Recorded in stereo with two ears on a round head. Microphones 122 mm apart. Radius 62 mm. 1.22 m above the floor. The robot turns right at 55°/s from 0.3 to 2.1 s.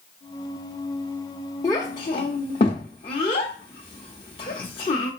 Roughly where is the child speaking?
Left.